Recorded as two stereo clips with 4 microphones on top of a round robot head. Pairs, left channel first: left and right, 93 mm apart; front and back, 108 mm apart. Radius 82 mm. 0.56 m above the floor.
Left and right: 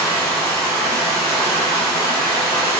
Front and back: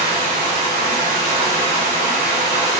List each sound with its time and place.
0.0 s running water: 175° left, 0.8 m